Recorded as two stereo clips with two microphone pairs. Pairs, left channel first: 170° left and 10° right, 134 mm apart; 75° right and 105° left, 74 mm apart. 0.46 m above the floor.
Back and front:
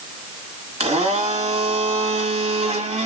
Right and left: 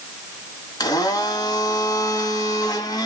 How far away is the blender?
About 1.7 m.